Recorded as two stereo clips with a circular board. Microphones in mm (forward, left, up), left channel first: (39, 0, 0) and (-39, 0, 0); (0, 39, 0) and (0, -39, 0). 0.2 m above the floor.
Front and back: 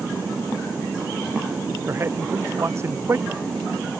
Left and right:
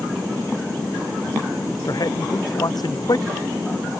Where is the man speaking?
125° left.